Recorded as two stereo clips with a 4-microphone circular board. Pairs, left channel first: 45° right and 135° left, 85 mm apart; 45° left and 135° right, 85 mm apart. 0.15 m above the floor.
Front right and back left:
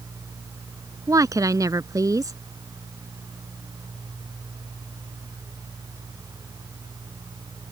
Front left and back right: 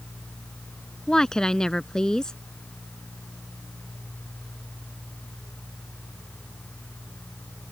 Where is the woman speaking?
125° left.